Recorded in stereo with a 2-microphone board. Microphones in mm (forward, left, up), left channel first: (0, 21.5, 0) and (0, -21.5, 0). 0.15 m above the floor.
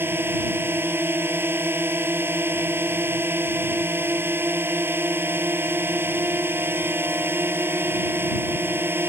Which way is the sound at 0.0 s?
65° right (ahead or behind).